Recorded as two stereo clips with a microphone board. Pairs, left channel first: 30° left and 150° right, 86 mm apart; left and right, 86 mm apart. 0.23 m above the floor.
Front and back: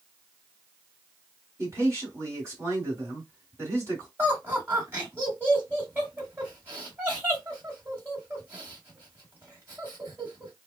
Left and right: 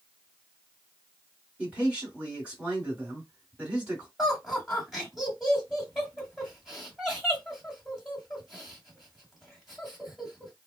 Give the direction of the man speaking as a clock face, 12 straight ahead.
5 o'clock.